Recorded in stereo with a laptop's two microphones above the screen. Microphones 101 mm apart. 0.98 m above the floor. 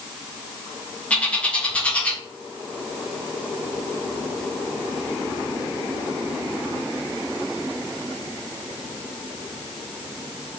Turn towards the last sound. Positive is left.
turn(degrees=10)  # may be behind; listen again after turning